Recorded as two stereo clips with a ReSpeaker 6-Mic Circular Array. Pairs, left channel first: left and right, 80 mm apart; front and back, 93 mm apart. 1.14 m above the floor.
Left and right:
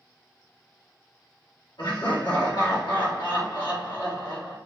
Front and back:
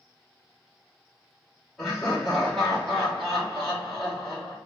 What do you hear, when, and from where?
1.8 s laughter: 85° left, 1.2 m